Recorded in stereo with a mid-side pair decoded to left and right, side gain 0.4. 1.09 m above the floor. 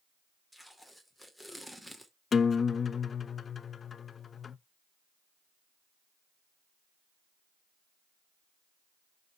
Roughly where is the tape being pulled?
Ahead.